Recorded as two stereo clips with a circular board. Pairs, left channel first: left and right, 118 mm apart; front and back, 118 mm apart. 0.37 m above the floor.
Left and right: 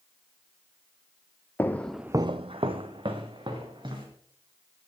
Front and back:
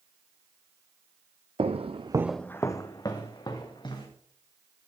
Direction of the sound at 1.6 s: 160° left.